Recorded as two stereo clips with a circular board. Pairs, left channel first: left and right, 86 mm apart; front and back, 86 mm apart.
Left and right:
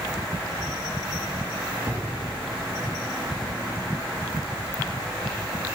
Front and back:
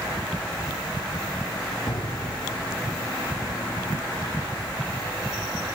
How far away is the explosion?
About 3.5 m.